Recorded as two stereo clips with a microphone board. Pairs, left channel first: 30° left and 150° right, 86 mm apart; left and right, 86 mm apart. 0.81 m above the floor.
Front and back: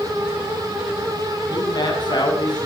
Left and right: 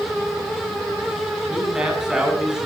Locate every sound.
1.5 s a man speaking: 5° right, 8.5 m